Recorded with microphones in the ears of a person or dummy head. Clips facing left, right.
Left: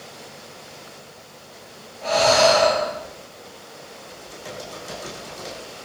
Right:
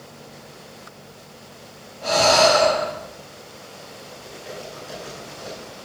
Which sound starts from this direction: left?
Typing on a keyboard, at 4.1 s.